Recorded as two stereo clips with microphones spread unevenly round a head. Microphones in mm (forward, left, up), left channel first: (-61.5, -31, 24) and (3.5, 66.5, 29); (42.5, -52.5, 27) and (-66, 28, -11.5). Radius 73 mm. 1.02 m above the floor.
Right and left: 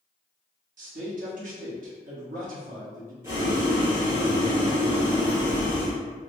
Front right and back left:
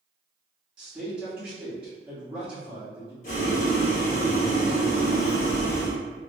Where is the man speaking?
60° left, 1.2 m.